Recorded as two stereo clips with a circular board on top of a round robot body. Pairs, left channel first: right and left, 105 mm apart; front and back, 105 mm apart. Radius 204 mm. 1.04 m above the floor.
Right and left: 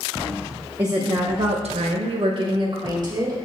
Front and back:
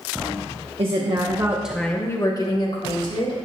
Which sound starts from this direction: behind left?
A woman speaking, at 0.8 s.